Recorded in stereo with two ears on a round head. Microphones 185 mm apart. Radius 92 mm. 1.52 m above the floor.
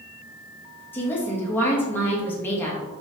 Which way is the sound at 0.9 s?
10° left (ahead or behind).